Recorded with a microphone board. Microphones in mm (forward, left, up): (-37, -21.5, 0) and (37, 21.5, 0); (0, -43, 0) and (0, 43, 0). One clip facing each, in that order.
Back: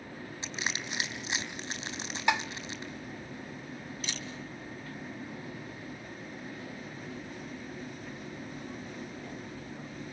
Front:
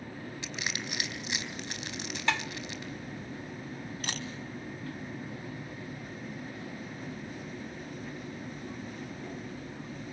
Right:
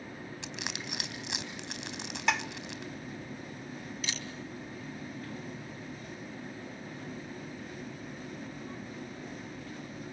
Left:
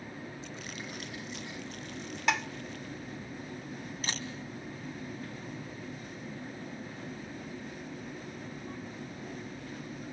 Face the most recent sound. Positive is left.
turn(degrees=50)